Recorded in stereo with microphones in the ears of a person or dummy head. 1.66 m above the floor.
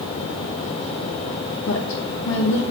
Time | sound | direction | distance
1.6 | a woman speaking | 75° left (ahead or behind) | 1.9 m